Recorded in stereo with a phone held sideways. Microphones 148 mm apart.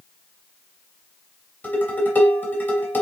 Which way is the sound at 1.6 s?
15° left (ahead or behind).